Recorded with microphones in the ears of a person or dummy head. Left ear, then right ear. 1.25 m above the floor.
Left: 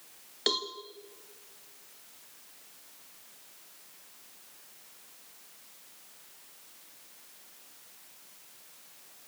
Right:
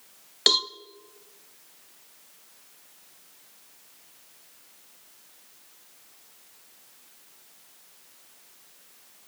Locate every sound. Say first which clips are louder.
0.5 s a cowbell: right 9 dB; 40° right (ahead or behind), 0.7 m